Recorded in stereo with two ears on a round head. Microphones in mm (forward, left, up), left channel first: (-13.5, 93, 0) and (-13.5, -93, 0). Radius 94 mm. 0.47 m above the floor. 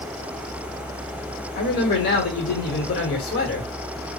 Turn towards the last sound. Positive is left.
turn(degrees=55)  # may be behind; listen again after turning